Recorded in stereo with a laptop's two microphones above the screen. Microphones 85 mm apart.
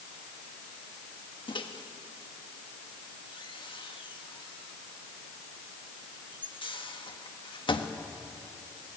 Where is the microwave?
80° left, 1.3 m.